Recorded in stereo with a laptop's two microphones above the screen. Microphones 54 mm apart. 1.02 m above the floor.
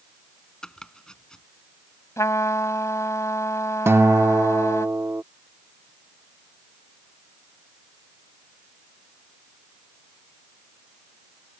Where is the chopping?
15° left (ahead or behind).